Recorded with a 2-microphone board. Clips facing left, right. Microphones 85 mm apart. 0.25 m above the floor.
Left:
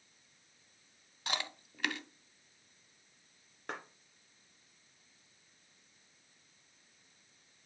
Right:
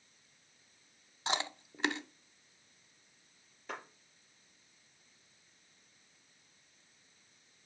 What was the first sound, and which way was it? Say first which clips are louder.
Chewing: right 4 dB; 30° right (ahead or behind).